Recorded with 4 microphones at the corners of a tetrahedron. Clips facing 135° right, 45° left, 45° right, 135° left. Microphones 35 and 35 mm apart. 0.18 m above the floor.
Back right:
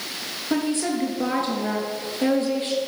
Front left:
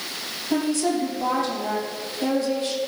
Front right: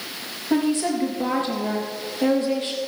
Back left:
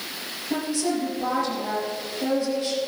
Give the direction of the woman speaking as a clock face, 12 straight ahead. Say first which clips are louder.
Front left 1 dB, front right 4 dB; 3 o'clock.